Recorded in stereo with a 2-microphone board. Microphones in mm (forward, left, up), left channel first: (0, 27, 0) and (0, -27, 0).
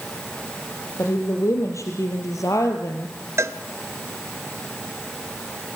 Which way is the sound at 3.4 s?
60° right (ahead or behind).